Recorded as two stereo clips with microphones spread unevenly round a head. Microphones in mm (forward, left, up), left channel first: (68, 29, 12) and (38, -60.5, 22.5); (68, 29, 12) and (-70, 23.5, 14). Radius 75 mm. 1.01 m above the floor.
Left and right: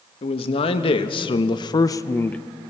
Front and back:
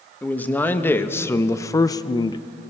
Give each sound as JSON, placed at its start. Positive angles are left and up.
{"t": 0.2, "sound": "a man speaking", "azimuth_deg": 80, "distance_m": 1.6}